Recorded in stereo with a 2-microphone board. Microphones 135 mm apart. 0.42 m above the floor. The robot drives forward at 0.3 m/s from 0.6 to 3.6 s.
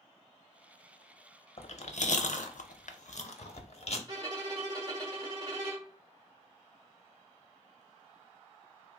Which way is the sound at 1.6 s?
55° left (ahead or behind).